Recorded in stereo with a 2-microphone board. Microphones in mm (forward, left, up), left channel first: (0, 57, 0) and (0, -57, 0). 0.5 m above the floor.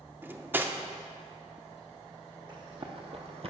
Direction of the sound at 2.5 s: 40° right (ahead or behind).